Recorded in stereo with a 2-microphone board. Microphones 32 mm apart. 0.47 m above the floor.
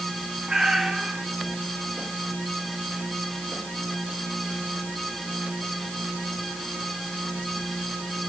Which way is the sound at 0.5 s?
25° right (ahead or behind).